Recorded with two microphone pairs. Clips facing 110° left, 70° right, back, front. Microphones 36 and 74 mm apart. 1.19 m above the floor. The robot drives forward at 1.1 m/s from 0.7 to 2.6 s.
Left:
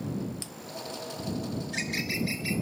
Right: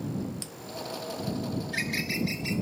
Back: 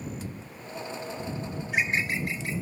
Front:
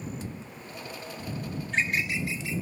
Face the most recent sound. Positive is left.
turn(degrees=-170)